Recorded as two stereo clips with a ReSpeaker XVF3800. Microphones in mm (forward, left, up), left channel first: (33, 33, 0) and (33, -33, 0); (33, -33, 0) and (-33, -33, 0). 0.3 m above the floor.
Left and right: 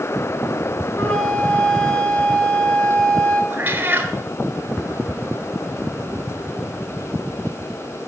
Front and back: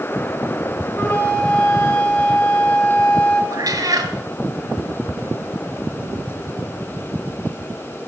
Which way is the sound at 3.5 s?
155° right.